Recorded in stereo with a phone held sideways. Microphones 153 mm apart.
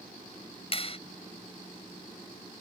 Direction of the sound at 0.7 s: 40° left (ahead or behind).